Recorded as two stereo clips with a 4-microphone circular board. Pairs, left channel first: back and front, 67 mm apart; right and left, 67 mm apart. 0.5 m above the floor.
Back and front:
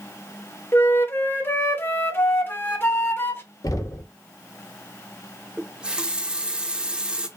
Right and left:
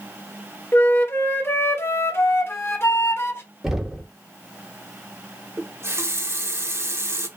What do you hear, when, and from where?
0.7 s a flute: 135° right, 0.7 m
3.6 s knocking: 175° left, 0.8 m
5.6 s a running tap: 65° left, 0.5 m